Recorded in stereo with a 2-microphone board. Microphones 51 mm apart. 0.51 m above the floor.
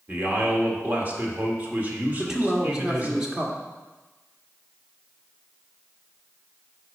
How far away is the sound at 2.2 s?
About 1.4 m.